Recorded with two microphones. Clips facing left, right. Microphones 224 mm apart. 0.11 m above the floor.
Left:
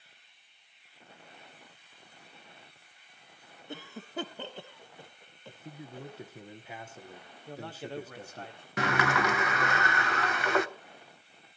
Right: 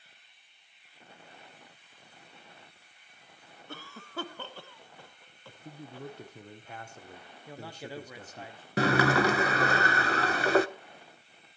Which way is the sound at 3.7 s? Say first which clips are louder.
Left 3 dB; 20° left (ahead or behind).